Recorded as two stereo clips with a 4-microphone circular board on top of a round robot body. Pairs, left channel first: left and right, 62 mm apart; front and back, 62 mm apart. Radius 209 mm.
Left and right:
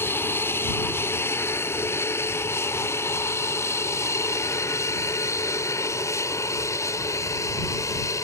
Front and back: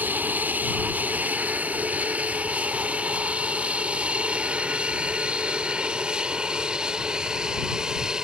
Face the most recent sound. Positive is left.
turn(degrees=105)